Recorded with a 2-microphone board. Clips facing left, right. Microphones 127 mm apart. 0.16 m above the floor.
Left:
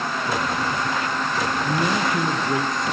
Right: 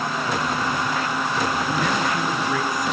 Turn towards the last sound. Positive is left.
turn(degrees=25)  # may be behind; listen again after turning